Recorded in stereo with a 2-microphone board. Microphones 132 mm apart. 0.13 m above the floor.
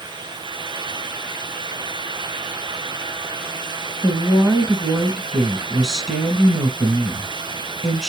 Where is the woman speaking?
Centre (ahead or behind), 1.1 m.